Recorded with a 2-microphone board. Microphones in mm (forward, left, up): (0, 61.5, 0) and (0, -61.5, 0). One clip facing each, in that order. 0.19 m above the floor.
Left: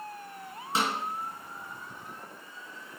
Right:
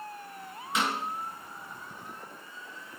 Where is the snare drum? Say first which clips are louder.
Left 1 dB; 35° left (ahead or behind), 2.5 m.